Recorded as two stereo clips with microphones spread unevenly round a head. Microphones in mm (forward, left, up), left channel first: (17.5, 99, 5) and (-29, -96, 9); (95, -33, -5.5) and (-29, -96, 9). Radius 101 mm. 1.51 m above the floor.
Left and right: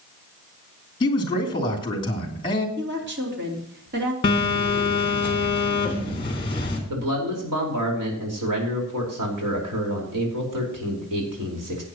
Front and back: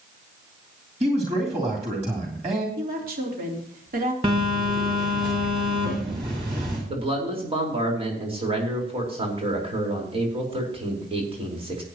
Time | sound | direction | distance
1.0 | a man speaking | 145° left | 3 m
2.8 | a woman speaking | 140° right | 3.5 m
4.2 | a phone buzzing | 140° left | 3 m
6.9 | a man speaking | 105° right | 4.5 m